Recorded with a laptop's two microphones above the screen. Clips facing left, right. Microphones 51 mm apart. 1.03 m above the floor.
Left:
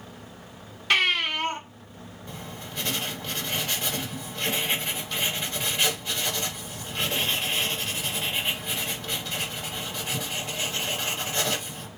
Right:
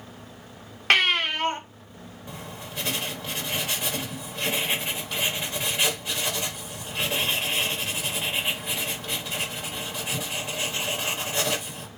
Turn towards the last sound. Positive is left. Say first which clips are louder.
# right 1 dB
turn(degrees=-10)  # may be behind; listen again after turning